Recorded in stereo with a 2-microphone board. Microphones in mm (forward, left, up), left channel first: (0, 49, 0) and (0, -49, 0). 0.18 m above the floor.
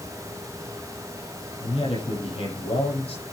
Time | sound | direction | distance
1.6 | a man speaking | 75° left (ahead or behind) | 8 m